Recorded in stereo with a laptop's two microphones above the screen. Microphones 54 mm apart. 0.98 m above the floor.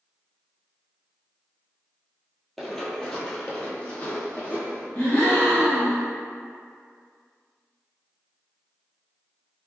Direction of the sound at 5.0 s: 30° left (ahead or behind).